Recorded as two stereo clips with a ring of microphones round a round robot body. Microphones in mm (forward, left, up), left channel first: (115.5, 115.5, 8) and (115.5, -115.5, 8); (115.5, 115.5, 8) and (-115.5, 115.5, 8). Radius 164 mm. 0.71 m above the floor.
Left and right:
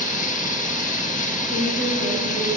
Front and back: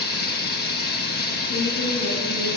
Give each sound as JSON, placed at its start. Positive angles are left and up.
{"t": 0.0, "sound": "running water", "azimuth_deg": 40, "distance_m": 1.3}
{"t": 1.5, "sound": "a woman speaking", "azimuth_deg": -50, "distance_m": 3.5}